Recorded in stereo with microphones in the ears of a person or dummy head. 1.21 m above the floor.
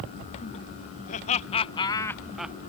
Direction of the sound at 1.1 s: 40° left (ahead or behind).